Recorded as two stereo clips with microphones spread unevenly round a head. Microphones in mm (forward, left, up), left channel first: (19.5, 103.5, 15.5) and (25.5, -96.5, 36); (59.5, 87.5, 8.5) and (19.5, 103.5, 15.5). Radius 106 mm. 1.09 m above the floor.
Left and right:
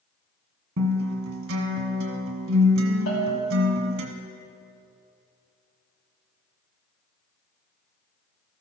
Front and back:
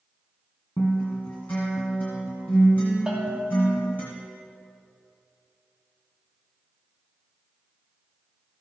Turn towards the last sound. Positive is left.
turn(degrees=90)